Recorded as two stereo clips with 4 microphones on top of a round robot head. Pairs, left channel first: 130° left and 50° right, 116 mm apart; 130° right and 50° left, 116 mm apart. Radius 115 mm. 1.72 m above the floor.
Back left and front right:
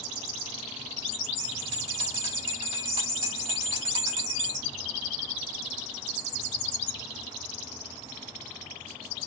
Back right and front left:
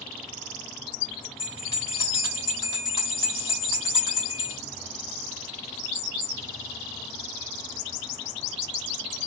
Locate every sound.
1.4 s a bell: 70° right, 3.5 m